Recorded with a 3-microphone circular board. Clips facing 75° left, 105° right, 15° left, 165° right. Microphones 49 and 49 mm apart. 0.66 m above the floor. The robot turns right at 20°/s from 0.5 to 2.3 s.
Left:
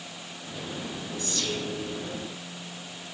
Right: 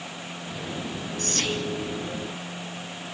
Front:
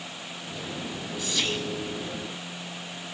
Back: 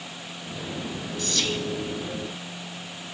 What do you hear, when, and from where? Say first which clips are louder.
1.2 s whispering: right 4 dB, back 1 dB; 70° right, 5 m; by 1.6 s 60° right, 5 m